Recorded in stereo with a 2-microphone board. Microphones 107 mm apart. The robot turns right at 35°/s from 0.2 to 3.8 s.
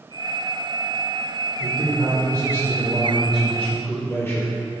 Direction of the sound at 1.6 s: 55° right.